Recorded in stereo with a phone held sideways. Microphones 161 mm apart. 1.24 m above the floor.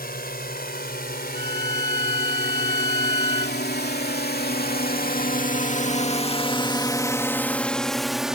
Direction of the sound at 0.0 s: 70° left (ahead or behind).